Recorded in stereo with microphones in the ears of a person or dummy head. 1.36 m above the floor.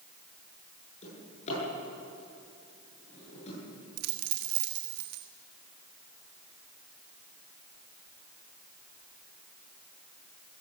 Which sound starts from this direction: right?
A dropped coin, at 4.0 s.